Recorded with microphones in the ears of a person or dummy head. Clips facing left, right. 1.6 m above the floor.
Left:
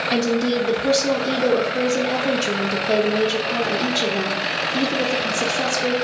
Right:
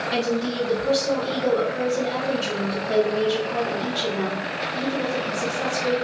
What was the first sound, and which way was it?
A woman speaking, 85° left.